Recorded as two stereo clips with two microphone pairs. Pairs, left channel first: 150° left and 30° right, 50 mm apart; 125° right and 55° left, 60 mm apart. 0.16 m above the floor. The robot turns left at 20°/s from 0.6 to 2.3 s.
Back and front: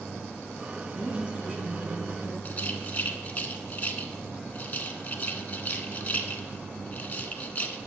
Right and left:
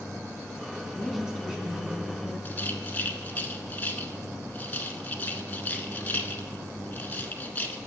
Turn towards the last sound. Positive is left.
turn(degrees=-170)